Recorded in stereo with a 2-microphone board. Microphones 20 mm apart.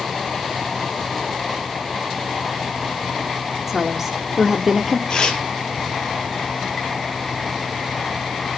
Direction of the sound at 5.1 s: 50° left (ahead or behind).